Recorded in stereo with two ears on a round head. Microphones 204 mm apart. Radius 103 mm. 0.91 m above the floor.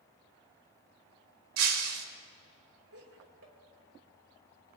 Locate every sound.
1.6 s breaking glass: 75° right (ahead or behind), 1.4 m
2.9 s laughter: 70° right (ahead or behind), 3 m